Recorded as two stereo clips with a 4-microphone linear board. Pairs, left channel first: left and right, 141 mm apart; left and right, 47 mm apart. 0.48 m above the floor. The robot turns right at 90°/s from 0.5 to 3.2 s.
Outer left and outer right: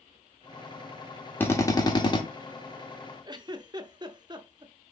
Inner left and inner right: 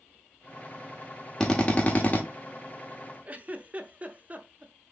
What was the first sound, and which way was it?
A drill, 25° left.